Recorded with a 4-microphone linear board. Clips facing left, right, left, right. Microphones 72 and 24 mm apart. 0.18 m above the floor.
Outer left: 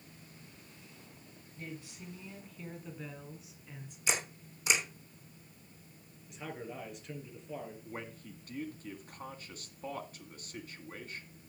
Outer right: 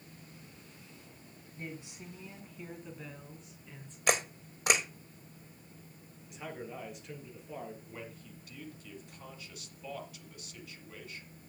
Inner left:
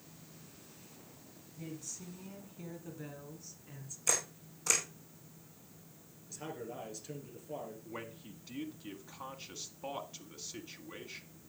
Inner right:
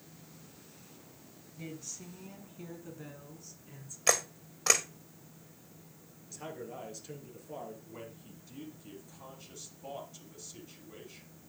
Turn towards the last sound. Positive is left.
turn(degrees=45)  # may be behind; listen again after turning